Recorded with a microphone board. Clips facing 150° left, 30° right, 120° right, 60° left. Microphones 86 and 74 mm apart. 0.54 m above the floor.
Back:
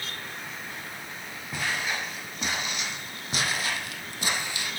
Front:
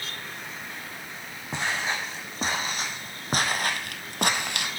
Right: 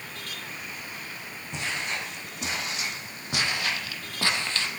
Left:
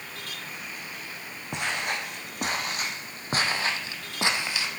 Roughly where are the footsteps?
Ahead left.